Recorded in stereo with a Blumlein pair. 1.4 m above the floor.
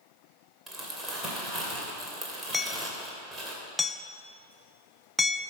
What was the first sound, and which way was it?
Crumpling, 10° right.